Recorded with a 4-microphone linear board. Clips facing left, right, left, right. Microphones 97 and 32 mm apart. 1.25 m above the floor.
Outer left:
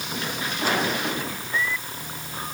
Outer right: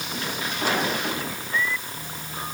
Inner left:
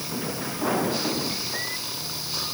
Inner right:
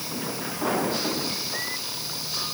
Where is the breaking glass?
I don't hear breaking glass.